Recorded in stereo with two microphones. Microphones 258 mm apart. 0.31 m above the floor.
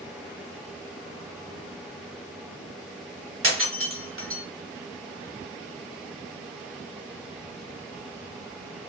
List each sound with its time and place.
3.4 s breaking glass: 55° right (ahead or behind), 1.1 m